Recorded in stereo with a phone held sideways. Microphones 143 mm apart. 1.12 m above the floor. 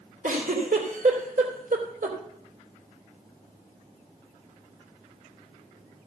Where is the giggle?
70° right (ahead or behind), 3 m.